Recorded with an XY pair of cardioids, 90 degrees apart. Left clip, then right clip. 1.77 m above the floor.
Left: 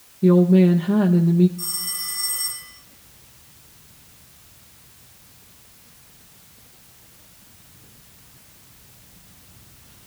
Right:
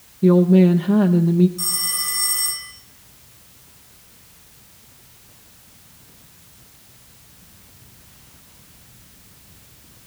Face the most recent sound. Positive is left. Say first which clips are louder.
# right 5 dB
turn(degrees=-70)